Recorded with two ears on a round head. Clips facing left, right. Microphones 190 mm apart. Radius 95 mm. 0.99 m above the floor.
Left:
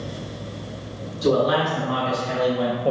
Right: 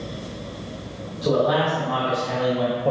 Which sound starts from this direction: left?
A man speaking, at 1.2 s.